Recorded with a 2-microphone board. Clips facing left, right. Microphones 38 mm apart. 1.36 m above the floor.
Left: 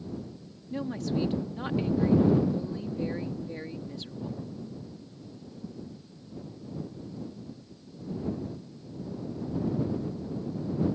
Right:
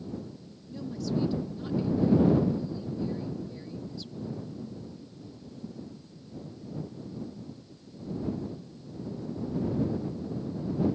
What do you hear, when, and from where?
0.7 s a woman speaking: 50° left (ahead or behind)